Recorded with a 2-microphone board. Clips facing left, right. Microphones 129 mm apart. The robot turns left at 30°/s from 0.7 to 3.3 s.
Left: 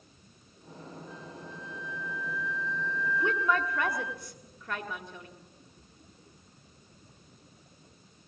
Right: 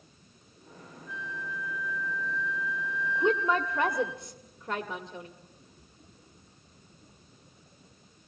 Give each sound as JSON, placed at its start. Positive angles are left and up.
{"t": 1.1, "sound": "a flute", "azimuth_deg": 45, "distance_m": 1.1}
{"t": 3.1, "sound": "a woman speaking", "side_deg": -20, "distance_m": 1.3}